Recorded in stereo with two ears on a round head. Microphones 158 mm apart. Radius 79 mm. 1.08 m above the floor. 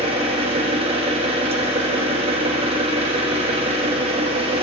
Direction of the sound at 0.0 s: 35° right (ahead or behind).